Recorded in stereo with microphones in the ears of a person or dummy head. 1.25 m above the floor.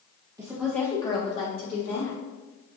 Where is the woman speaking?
20° right (ahead or behind), 0.9 m; by 2.2 s 55° left (ahead or behind), 1.9 m.